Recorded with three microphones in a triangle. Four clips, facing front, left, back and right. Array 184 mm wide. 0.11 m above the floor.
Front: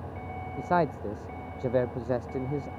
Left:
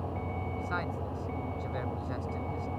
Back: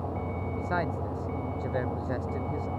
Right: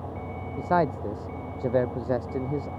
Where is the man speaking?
60° right.